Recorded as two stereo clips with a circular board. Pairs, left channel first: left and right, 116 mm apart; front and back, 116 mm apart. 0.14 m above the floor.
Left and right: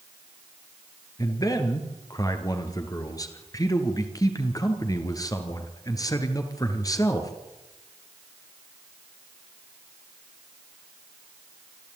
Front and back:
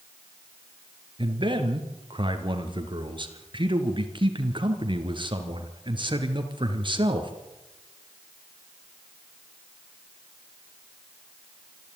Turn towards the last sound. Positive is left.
turn(degrees=145)